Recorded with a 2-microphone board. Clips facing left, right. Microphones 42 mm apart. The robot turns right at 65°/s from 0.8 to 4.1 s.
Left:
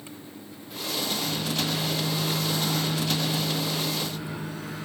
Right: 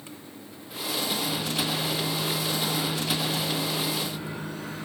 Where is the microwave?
15° left, 5.5 m; by 4.9 s 155° right, 5.5 m.